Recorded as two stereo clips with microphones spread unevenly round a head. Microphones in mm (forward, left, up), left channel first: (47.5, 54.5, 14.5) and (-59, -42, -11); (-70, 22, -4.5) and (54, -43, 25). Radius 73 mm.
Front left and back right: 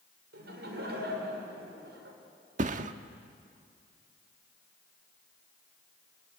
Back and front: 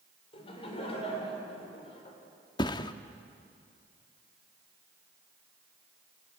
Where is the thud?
145° right, 1.0 m.